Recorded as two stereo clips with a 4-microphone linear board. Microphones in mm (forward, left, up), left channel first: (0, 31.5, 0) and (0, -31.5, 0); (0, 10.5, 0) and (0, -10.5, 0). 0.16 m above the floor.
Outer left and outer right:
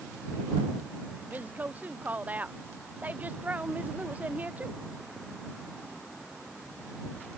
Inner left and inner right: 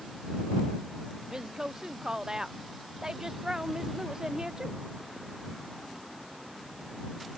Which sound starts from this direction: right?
A woman speaking, at 1.3 s.